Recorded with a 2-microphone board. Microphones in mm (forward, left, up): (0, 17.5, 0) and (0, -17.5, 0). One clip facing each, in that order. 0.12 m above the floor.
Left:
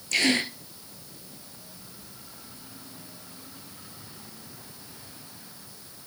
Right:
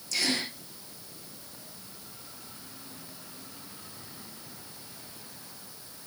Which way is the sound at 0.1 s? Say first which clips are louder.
Left 6 dB; 60° left (ahead or behind).